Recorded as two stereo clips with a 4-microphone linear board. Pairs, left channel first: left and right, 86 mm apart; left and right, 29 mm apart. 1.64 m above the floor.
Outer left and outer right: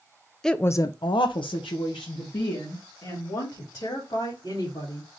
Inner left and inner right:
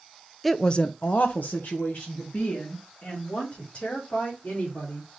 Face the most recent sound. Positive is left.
turn(degrees=60)  # may be behind; listen again after turning